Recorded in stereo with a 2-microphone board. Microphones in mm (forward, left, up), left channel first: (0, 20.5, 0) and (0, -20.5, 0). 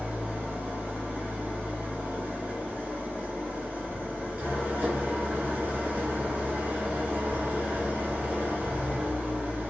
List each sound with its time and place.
0.0 s an engine running: 45° right (ahead or behind), 1.0 m